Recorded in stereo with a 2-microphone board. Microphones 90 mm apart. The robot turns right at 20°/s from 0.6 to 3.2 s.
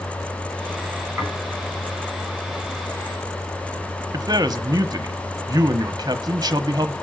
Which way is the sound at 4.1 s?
40° right (ahead or behind).